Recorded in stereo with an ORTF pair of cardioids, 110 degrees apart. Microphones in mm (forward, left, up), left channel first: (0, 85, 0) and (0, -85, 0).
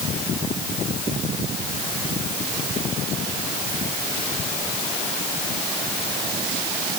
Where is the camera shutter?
No camera shutter in this recording.